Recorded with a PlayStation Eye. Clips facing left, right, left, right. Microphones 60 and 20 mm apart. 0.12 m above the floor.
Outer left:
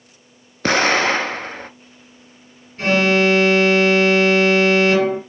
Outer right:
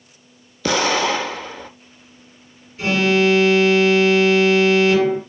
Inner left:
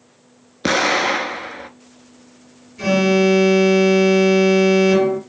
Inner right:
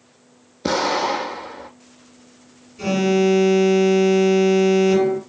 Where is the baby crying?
I don't hear a baby crying.